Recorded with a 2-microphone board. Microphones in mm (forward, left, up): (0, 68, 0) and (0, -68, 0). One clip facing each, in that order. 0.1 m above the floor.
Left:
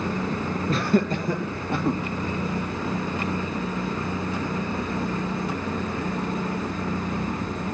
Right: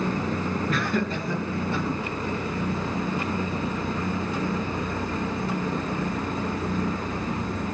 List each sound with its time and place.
0.7 s laughter: 30° left (ahead or behind), 1.2 m; by 2.0 s 60° left (ahead or behind), 2.0 m